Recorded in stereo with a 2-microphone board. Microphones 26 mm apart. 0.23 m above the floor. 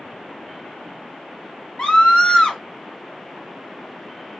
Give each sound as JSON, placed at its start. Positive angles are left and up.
{"t": 1.8, "sound": "a scream", "side_deg": 40, "distance_m": 1.5}